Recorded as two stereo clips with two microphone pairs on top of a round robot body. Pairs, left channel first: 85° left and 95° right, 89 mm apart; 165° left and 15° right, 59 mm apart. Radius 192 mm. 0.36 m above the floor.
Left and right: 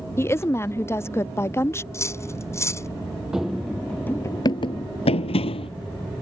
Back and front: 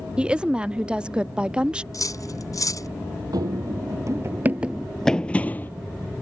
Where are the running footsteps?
10° right; by 5.7 s 105° left.